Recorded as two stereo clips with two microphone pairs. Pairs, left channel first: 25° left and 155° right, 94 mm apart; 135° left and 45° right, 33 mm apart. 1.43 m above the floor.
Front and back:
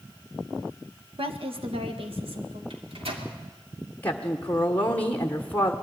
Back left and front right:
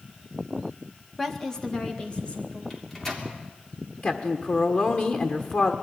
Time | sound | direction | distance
1.2 | a woman speaking | 140° right | 1.6 m
2.7 | a microwave | 150° right | 3 m
4.0 | a woman speaking | 95° left | 1.4 m